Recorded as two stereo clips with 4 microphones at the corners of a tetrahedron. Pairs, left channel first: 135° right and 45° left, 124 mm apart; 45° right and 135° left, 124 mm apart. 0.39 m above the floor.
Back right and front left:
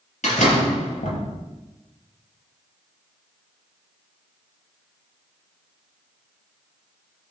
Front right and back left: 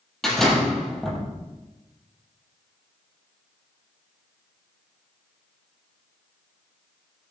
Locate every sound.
0.2 s a door slam: 130° right, 6 m